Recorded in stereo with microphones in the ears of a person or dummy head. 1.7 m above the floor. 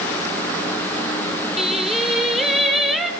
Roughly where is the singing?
Centre.